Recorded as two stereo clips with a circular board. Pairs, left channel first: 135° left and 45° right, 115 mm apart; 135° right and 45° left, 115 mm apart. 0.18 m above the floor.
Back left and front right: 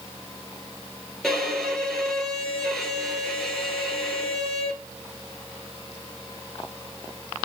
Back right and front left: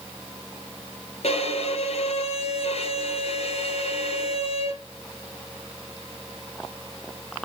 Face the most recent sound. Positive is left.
turn(degrees=-140)